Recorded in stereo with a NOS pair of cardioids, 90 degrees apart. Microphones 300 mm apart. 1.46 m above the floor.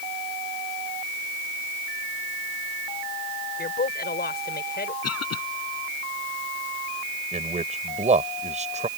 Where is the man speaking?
25° right.